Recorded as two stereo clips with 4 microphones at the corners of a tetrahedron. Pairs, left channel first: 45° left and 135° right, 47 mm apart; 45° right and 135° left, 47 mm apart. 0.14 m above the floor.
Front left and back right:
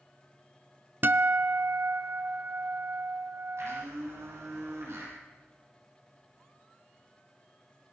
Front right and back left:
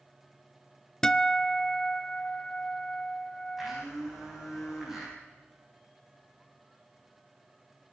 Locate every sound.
1.0 s a guitar: 115° right, 0.6 m
3.6 s a blender: 145° right, 8 m